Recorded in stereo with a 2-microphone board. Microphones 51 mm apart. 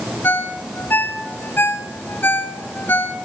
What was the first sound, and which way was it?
A ringtone, 40° left (ahead or behind).